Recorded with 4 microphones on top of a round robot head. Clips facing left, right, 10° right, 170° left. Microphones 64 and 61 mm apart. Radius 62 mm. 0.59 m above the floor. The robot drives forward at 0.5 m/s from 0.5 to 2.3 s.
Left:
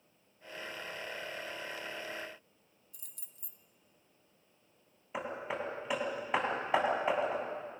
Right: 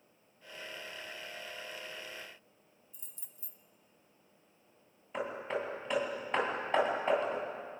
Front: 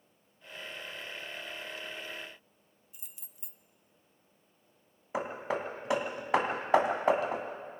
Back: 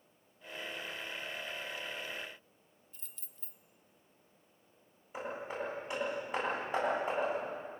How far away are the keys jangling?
About 1.2 m.